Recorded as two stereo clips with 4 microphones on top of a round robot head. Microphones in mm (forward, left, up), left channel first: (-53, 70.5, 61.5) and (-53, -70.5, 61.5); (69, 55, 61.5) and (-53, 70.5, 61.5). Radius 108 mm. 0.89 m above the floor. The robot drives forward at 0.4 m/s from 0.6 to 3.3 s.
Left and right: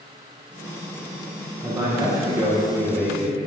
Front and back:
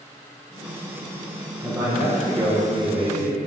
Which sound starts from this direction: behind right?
A man speaking, at 1.6 s.